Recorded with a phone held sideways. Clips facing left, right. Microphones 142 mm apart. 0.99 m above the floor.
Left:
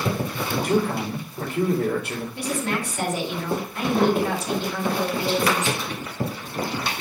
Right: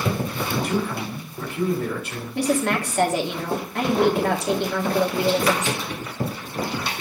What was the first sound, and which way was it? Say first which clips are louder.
A man speaking: left 4 dB; 55° left (ahead or behind).